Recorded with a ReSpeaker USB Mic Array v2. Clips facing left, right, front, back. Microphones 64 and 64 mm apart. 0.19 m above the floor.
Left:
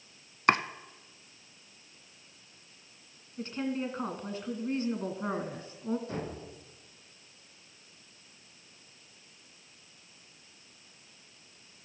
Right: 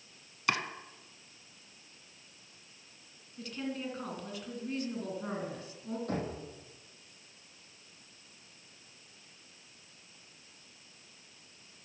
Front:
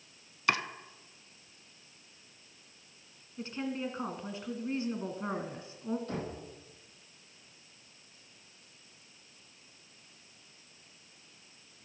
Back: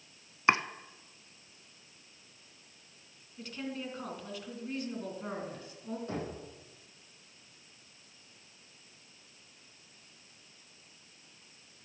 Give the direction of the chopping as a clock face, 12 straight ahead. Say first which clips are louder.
Left 7 dB, back 4 dB; 8 o'clock.